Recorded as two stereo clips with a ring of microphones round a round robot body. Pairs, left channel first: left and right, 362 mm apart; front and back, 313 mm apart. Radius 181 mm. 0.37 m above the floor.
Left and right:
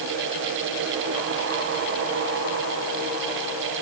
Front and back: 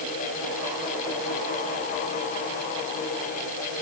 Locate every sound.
Only background noise.